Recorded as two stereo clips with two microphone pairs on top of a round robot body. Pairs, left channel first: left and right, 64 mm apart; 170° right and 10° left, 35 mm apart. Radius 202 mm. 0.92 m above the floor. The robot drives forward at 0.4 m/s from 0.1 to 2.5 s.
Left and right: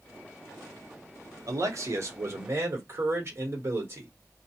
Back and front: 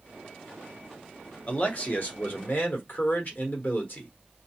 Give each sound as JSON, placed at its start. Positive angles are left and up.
{"t": 1.5, "sound": "a man speaking", "azimuth_deg": -120, "distance_m": 0.9}